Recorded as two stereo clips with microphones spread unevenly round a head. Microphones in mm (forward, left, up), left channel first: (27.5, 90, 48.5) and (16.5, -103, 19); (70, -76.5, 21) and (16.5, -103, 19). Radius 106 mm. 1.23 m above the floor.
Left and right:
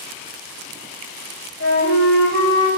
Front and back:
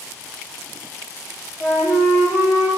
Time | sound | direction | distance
1.6 | a flute | 65° left | 1.2 m